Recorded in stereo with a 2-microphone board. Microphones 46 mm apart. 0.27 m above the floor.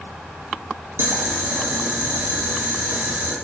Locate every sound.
1.0 s boiling: 70° right (ahead or behind), 0.8 m